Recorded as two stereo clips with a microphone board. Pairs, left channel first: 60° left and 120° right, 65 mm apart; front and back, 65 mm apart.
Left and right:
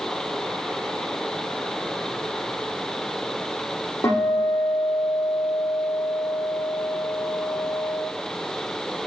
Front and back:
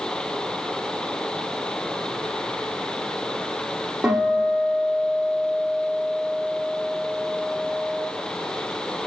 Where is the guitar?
100° left, 8.5 m.